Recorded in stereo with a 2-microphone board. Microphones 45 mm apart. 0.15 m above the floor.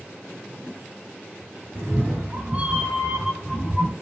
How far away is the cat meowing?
About 1.2 m.